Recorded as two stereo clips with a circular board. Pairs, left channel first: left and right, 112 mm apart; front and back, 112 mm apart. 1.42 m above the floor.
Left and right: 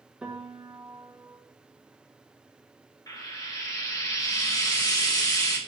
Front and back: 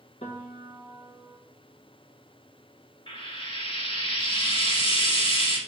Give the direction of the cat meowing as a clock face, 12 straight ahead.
No cat meowing in this recording.